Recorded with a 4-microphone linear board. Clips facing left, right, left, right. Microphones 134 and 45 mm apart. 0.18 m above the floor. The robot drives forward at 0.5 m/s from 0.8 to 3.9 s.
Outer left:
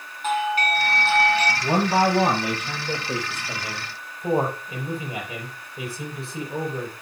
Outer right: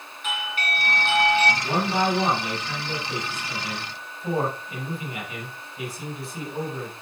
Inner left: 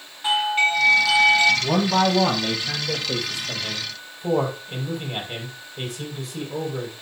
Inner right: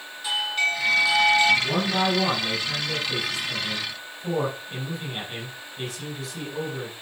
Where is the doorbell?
40° left (ahead or behind), 2 m; by 1.5 s 35° left (ahead or behind), 2 m.